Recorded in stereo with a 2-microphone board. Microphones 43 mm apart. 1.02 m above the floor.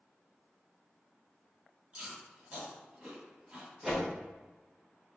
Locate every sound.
1.9 s chewing: 20° right (ahead or behind), 1.9 m
3.8 s a whoosh: 10° right (ahead or behind), 1.3 m